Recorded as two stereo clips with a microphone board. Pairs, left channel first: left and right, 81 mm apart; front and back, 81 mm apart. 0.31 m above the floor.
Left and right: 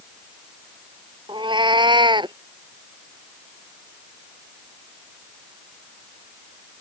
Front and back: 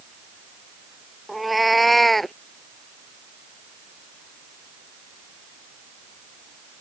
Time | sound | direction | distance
1.3 | a cat meowing | 90° right | ?